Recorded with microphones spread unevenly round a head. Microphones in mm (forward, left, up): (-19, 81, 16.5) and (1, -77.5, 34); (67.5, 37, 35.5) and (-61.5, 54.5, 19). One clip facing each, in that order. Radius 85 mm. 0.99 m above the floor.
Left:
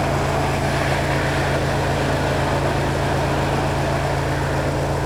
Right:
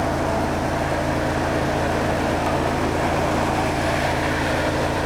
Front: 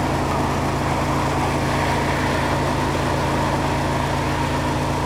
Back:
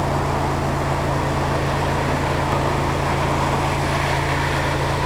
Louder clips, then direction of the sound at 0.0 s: Left 1 dB, even; 45° left.